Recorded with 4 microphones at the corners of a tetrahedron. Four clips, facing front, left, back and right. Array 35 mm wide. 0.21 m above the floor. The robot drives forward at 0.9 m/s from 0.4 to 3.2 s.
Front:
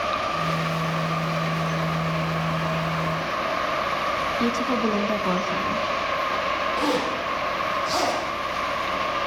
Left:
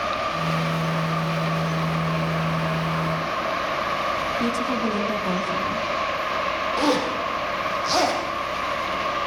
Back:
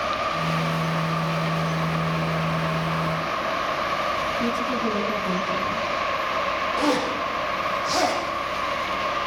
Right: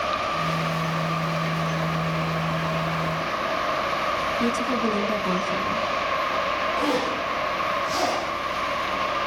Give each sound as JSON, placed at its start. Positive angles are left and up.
{"t": 4.4, "sound": "a woman speaking", "azimuth_deg": 0, "distance_m": 1.7}
{"t": 6.8, "sound": "a zipper", "azimuth_deg": 85, "distance_m": 6.5}